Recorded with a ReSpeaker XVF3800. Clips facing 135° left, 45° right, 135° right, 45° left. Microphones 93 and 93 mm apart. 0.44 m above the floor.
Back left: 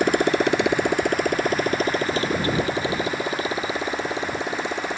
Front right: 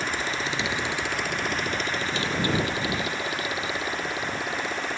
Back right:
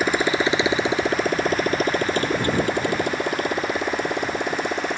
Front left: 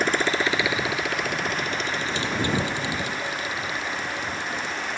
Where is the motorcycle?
140° left; by 5.0 s 160° right.